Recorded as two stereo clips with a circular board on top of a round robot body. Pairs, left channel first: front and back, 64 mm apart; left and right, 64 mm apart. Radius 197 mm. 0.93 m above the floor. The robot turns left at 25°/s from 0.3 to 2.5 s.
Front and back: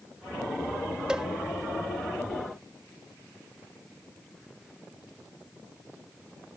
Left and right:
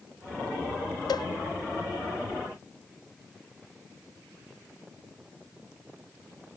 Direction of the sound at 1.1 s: 100° left.